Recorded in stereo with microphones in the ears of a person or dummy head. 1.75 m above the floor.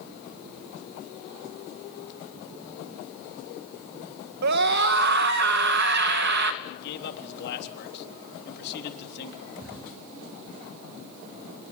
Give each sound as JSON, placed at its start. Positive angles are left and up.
{"t": 4.4, "sound": "a scream", "side_deg": -60, "distance_m": 2.0}
{"t": 6.6, "sound": "a man speaking", "side_deg": 65, "distance_m": 3.5}
{"t": 9.6, "sound": "a drawer", "side_deg": 0, "distance_m": 3.5}